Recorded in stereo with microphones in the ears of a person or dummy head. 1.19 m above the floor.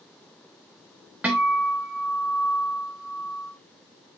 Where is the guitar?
10° right (ahead or behind), 0.8 m.